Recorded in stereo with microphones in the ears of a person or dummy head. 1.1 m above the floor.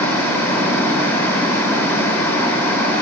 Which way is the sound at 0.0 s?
5° left (ahead or behind).